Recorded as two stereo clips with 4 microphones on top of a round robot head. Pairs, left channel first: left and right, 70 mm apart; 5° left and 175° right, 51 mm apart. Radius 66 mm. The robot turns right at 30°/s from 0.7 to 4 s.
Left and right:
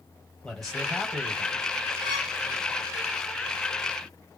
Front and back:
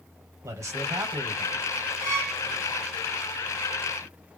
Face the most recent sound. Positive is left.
turn(degrees=-65)